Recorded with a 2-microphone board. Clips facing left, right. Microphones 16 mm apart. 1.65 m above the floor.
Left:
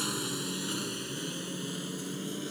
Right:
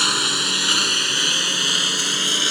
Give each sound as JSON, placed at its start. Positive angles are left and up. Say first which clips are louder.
{"t": 0.0, "sound": "a lawn mower", "louder": "right 15 dB", "side_deg": -55}